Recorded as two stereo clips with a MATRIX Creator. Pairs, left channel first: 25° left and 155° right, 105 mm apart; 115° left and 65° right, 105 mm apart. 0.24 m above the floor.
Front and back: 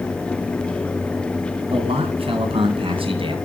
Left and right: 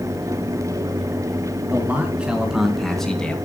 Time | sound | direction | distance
1.7 | a man speaking | 140° right | 4 m